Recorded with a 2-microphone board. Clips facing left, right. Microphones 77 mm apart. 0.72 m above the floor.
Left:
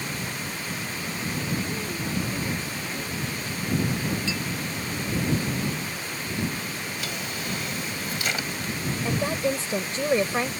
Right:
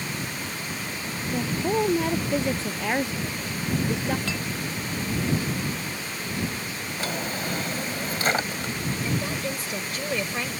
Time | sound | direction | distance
1.3 | a woman speaking | 80° right | ?
4.3 | a clink | 60° right (ahead or behind) | ?
7.0 | a drawer | 40° right (ahead or behind) | ?
9.1 | a woman speaking | 30° left (ahead or behind) | ?